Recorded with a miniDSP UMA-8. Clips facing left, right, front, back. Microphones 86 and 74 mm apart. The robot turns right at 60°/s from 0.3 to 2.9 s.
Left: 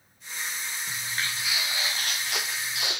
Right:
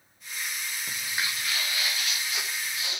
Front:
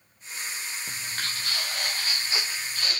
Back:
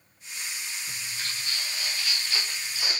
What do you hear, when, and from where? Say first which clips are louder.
0.9 s footsteps: even, front 4 dB; 35° right, 4.5 m; by 3.0 s 105° left, 3.5 m